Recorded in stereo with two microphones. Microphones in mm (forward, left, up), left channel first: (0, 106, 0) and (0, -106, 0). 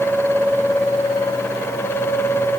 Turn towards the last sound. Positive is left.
No sound to turn to.